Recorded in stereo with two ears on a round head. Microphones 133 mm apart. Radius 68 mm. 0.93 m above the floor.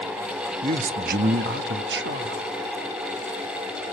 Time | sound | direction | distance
0.6 | a man speaking | 45° right (ahead or behind) | 1.0 m